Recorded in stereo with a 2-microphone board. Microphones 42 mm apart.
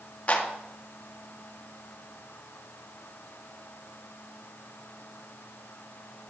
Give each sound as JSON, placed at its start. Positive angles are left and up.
{"t": 0.3, "sound": "a clap", "side_deg": 35, "distance_m": 1.5}